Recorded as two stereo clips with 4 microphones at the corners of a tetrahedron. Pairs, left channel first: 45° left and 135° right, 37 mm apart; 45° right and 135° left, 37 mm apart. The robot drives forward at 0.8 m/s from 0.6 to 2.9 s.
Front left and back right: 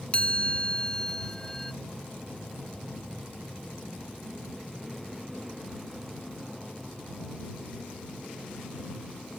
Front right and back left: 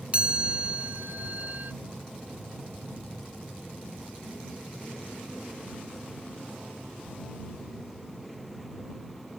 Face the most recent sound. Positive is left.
turn(degrees=145)